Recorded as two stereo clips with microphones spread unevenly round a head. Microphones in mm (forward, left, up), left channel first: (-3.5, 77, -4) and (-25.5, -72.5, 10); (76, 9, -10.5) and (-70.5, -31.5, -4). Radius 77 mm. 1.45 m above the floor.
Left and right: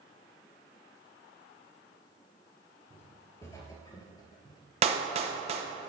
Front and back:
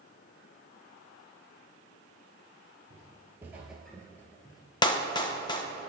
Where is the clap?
50° right, 0.8 m.